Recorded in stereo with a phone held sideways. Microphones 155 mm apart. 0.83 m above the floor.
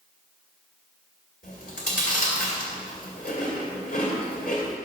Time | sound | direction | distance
1.4 | chewing | 65° left (ahead or behind) | 2 m